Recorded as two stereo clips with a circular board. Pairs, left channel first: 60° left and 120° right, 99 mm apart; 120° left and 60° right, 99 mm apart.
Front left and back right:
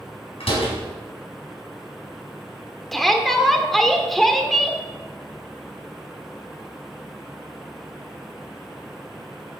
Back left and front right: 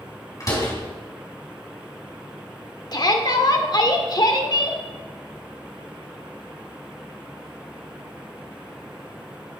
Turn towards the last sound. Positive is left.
turn(degrees=150)